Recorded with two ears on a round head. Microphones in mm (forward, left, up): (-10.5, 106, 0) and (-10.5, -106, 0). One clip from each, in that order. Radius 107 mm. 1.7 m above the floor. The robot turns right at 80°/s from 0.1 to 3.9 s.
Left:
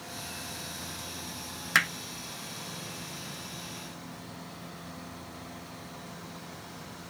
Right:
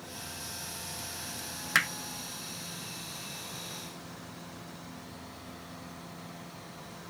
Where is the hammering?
Centre (ahead or behind); by 1.9 s 10° right (ahead or behind).